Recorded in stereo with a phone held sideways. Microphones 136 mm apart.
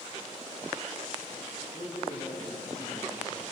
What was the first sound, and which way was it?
A man speaking, 55° left (ahead or behind).